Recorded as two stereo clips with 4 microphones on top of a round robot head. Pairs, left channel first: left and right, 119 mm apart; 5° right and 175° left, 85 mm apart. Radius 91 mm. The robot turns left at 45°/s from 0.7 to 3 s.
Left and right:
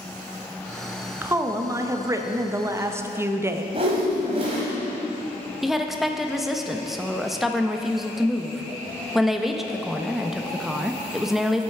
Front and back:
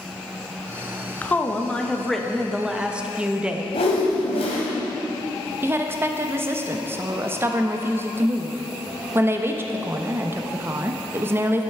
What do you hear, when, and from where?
1.2 s a woman speaking: 45° right, 0.7 m; by 3.6 s 125° right, 0.7 m
3.7 s a whoosh: 35° right, 1.3 m
5.6 s a woman speaking: 175° right, 0.7 m